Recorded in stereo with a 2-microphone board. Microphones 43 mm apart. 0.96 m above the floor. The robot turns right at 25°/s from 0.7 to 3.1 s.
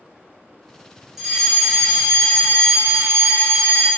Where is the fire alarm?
170° right, 1.9 m; by 3.9 s 120° right, 1.9 m.